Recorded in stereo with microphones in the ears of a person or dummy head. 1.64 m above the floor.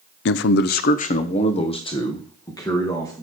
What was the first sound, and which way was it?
A man speaking, 75° left (ahead or behind).